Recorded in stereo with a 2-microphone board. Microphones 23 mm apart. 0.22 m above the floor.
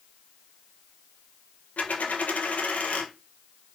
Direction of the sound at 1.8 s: 80° left.